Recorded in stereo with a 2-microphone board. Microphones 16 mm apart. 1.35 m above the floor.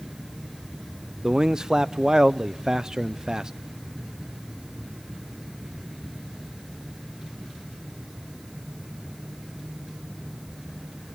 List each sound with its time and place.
1.2 s a man speaking: 45° right (ahead or behind), 0.5 m